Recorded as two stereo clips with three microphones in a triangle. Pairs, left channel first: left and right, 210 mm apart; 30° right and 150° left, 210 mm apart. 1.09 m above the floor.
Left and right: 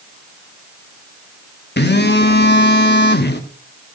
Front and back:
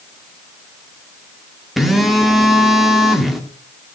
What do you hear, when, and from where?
1.8 s a phone buzzing: 60° left, 1.2 m